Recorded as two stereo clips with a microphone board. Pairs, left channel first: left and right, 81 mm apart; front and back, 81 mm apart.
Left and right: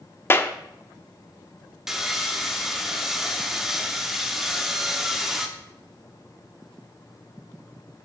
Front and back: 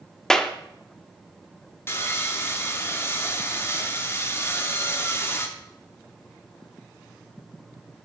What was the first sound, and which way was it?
A clap, 75° left.